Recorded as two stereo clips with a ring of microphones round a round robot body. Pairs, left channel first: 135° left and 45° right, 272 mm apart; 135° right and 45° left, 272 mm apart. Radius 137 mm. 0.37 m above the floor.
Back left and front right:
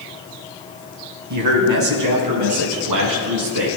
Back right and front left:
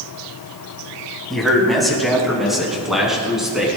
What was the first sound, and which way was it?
A man speaking, 45° right.